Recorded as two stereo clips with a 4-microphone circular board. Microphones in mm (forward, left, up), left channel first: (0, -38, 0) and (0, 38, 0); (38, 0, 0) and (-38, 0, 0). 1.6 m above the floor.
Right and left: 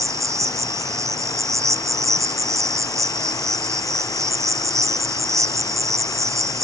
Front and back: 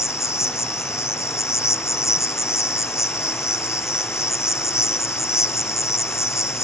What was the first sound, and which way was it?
An insect, 50° left.